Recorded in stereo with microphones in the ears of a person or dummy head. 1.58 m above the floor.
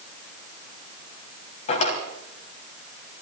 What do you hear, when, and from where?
1.7 s a drawer: 50° left (ahead or behind), 3 m